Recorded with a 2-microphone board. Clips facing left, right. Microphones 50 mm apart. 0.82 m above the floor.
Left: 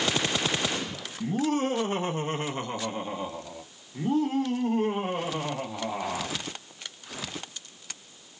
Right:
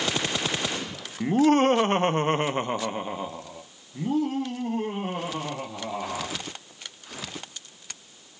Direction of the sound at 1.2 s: 50° right (ahead or behind).